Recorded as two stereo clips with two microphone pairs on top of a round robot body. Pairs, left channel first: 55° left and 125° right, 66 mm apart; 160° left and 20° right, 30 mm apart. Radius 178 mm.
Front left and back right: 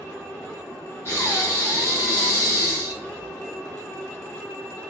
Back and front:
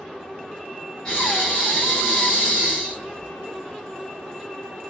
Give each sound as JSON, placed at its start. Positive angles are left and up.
{"t": 1.1, "sound": "breathing", "azimuth_deg": 95, "distance_m": 1.0}